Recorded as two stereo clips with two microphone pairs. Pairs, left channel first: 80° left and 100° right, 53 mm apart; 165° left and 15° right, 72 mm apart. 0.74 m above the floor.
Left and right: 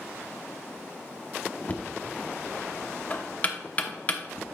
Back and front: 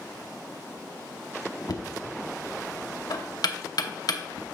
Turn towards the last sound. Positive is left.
turn(degrees=140)